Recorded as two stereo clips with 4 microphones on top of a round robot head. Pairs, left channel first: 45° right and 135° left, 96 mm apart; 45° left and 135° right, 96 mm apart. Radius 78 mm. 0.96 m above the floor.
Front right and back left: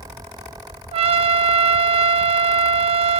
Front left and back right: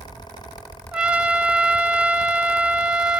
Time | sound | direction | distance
0.9 | a trumpet | 145° left | 0.6 m